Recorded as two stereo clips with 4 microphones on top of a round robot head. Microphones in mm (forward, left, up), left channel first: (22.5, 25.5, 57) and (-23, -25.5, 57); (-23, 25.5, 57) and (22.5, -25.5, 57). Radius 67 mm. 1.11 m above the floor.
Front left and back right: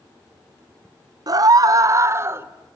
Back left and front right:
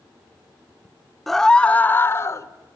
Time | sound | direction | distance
1.3 | a scream | 140° right | 0.9 m